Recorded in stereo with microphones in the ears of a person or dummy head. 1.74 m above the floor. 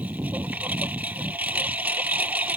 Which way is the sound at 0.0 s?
10° right (ahead or behind).